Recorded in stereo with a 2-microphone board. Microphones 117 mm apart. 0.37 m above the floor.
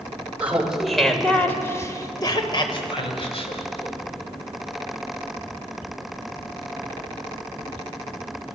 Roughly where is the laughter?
Centre.